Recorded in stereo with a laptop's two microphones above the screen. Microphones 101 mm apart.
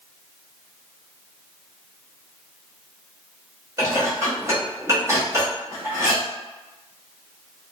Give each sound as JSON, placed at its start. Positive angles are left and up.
{"t": 3.8, "sound": "dishes clattering", "side_deg": -30, "distance_m": 1.0}